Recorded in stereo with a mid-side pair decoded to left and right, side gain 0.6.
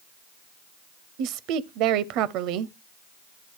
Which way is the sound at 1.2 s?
70° right.